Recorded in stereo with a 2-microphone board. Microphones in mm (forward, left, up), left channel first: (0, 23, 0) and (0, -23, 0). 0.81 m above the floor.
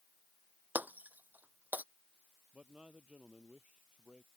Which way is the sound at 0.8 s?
40° right (ahead or behind).